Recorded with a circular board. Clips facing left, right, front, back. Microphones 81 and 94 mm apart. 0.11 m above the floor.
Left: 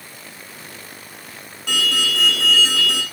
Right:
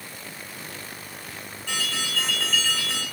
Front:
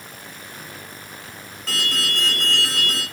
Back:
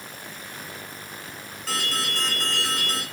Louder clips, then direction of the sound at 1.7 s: Left 8 dB, front 2 dB; 95° left.